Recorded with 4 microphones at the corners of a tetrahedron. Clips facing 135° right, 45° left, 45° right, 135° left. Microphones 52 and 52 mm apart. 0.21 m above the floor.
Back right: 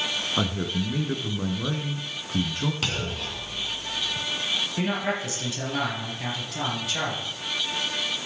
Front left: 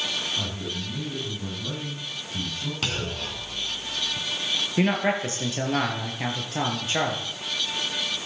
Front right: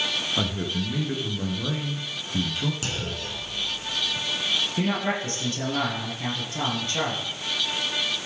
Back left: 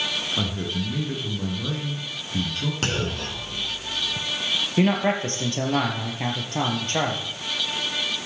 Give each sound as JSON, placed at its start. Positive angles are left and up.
{"t": 0.4, "sound": "a man speaking", "azimuth_deg": -125, "distance_m": 3.0}
{"t": 2.8, "sound": "a clunk", "azimuth_deg": 135, "distance_m": 1.7}
{"t": 4.8, "sound": "a man speaking", "azimuth_deg": 95, "distance_m": 4.5}